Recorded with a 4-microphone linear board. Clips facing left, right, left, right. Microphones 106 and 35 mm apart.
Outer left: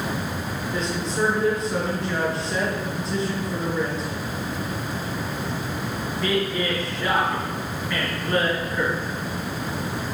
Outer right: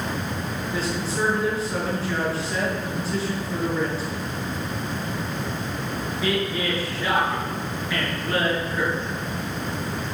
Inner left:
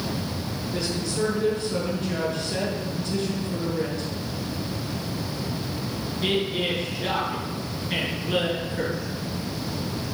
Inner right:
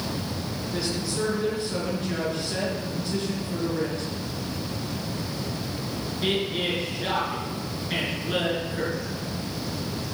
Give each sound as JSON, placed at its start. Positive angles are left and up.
{"t": 0.7, "sound": "a woman speaking", "side_deg": -5, "distance_m": 6.5}